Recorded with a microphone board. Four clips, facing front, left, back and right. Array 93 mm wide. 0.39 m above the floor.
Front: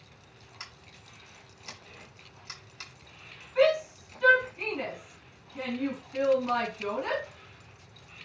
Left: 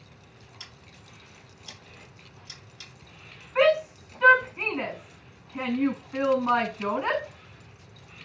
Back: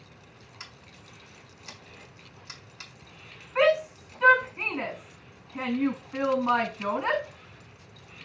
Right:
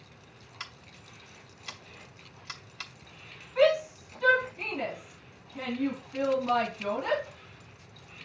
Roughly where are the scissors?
Right.